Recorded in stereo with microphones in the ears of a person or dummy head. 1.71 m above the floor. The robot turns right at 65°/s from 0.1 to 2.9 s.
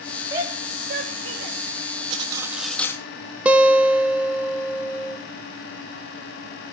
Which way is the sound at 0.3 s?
20° right (ahead or behind).